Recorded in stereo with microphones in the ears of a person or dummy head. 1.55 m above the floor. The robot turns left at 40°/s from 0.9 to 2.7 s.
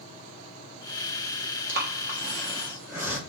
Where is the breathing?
55° right (ahead or behind), 1.0 m; by 3.2 s 15° right (ahead or behind), 1.0 m.